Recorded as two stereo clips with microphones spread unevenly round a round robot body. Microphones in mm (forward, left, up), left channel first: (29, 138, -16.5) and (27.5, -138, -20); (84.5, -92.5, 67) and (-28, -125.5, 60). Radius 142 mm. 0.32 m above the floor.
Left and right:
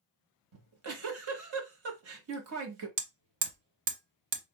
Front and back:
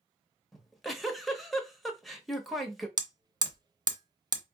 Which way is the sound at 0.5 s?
75° right.